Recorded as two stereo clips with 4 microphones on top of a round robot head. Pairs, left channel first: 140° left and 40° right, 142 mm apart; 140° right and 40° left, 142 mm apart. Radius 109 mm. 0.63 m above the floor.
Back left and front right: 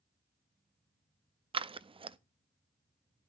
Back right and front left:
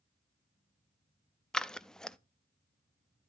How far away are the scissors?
About 0.6 m.